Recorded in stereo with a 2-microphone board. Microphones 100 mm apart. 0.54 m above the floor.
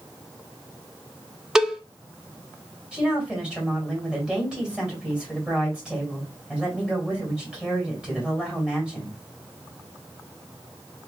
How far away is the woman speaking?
About 2.5 m.